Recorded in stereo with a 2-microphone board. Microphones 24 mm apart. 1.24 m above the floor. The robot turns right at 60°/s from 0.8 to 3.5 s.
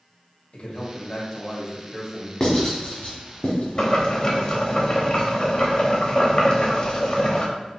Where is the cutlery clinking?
I don't hear cutlery clinking.